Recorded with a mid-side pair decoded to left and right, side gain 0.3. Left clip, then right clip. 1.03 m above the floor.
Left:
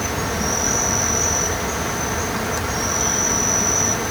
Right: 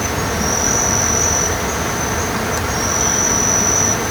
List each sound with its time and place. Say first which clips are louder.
0.0 s an insect: right 3 dB; 35° right